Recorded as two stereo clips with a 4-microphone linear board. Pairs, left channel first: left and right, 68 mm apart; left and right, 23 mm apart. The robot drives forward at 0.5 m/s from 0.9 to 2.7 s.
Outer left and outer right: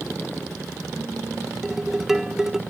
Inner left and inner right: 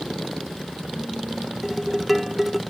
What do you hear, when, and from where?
1.6 s dishes clattering: 5° right (ahead or behind), 1.0 m